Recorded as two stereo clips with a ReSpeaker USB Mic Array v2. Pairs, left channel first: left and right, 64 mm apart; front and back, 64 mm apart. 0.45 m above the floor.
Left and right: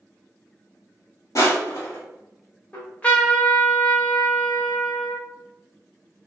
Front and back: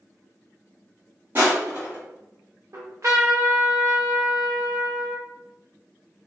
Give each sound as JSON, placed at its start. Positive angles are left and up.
{"t": 1.4, "sound": "crushing", "azimuth_deg": 125, "distance_m": 1.4}
{"t": 2.7, "sound": "a trumpet", "azimuth_deg": 155, "distance_m": 0.8}